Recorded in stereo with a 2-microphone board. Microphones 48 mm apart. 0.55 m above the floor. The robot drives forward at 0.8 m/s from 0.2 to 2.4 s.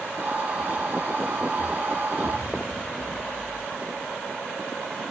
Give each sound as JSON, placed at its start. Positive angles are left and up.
{"t": 2.2, "sound": "an explosion", "side_deg": 30, "distance_m": 3.0}